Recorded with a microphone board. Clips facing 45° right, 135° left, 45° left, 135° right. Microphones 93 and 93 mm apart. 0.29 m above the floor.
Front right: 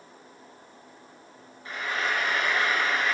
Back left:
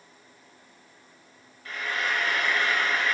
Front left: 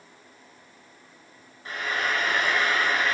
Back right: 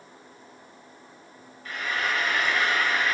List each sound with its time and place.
1.6 s frying: 5° left, 0.7 m